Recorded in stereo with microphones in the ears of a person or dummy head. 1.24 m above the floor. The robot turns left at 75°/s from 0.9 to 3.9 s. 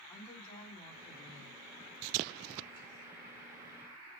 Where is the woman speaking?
170° left, 3.5 m; by 1.6 s 115° left, 3.5 m.